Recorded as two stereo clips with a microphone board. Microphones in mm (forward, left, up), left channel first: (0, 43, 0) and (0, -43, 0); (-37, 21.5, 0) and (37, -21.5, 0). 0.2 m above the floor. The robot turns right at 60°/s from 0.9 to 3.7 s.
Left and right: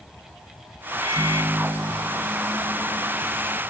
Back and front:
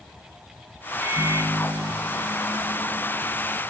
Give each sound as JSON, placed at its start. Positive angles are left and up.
{"t": 1.0, "sound": "a microwave", "azimuth_deg": -90, "distance_m": 1.5}